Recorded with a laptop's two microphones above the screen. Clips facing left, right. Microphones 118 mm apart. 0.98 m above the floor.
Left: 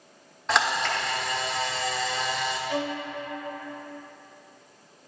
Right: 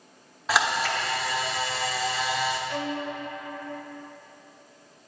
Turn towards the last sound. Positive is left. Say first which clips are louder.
# left 1 dB
turn(degrees=10)  # may be behind; listen again after turning